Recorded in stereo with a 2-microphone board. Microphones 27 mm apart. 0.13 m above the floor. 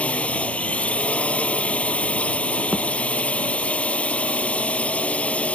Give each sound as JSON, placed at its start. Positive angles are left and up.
{"t": 0.0, "sound": "a drone", "side_deg": 60}
{"t": 2.7, "sound": "a thud", "side_deg": -75}